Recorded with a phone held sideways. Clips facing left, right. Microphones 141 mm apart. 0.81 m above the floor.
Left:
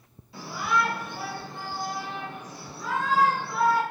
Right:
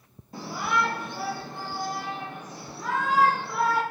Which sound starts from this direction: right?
A shout, at 0.3 s.